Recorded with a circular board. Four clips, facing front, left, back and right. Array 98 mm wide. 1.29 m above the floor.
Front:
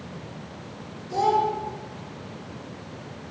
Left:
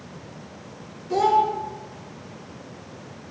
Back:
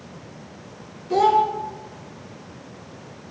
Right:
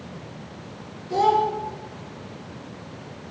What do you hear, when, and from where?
1.1 s a child speaking: 160° left, 0.9 m